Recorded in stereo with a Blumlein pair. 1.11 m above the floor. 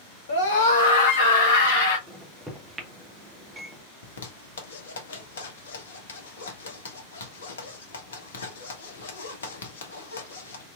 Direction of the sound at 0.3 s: 65° left.